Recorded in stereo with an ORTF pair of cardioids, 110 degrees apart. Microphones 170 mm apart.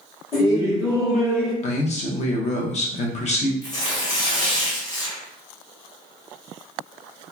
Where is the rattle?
I don't hear a rattle.